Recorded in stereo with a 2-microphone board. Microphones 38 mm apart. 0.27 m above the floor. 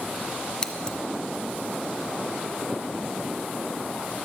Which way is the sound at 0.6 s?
15° left (ahead or behind).